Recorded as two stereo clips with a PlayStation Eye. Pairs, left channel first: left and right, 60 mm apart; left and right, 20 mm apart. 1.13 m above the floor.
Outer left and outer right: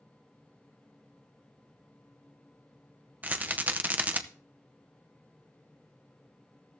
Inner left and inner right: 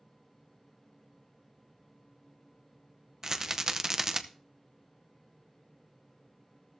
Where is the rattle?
30° right (ahead or behind), 0.7 m.